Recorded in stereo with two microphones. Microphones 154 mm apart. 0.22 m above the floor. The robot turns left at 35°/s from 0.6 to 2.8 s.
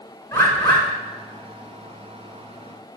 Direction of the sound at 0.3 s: 15° left (ahead or behind).